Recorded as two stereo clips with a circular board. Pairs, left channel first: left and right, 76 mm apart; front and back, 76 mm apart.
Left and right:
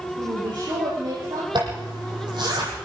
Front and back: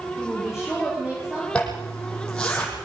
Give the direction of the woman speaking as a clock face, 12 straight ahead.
3 o'clock.